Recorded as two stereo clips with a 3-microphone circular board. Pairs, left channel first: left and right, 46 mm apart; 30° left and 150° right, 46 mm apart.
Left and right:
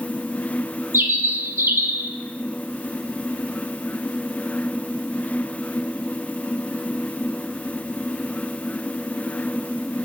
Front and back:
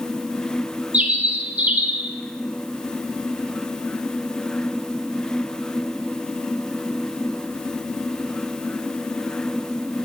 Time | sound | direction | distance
0.9 | a bird | 95° right | 0.5 m